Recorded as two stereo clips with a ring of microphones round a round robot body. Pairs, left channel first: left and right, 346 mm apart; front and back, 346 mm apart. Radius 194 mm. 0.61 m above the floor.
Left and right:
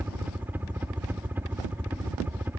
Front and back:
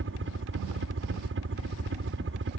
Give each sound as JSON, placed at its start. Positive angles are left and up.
{"t": 0.0, "sound": "a helicopter", "azimuth_deg": -170}